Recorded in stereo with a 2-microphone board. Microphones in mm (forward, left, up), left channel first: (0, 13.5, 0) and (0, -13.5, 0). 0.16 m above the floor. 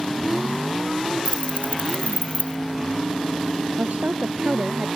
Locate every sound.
1.2 s keys jangling: 55° left (ahead or behind)
3.8 s a woman speaking: 65° right (ahead or behind)